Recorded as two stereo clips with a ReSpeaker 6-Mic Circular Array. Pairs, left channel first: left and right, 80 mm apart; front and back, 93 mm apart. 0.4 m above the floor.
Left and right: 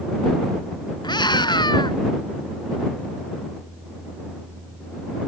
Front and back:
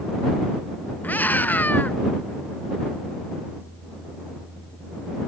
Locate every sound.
1.0 s a scream: 70° left